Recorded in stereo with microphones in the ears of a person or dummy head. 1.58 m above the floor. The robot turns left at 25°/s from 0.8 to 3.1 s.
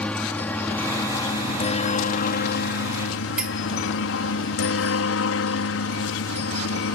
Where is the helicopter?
5° left (ahead or behind); by 6.9 s 70° left (ahead or behind).